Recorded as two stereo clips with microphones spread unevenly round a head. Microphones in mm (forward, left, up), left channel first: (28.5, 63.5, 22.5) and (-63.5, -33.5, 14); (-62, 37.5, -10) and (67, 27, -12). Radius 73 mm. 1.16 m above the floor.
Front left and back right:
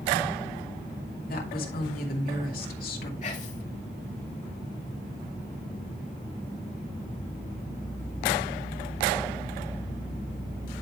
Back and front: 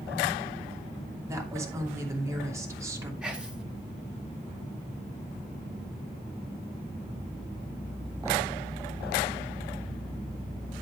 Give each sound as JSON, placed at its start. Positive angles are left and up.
{"t": 1.2, "sound": "a woman speaking", "azimuth_deg": 65, "distance_m": 2.5}
{"t": 3.2, "sound": "whispering", "azimuth_deg": 80, "distance_m": 2.5}